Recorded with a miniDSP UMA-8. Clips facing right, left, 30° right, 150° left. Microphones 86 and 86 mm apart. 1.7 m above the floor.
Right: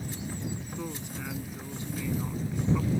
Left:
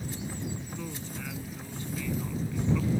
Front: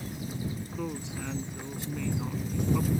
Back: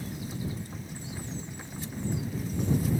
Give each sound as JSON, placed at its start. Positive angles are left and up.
{"t": 0.8, "sound": "a woman speaking", "azimuth_deg": -15}